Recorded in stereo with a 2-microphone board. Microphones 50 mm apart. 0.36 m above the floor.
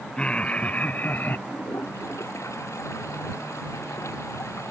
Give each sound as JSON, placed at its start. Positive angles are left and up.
{"t": 0.2, "sound": "laughter", "side_deg": 25}
{"t": 1.5, "sound": "a toilet flushing", "side_deg": 80}